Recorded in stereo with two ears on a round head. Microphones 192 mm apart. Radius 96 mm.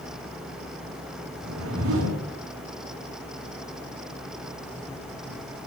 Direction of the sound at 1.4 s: 70° right (ahead or behind).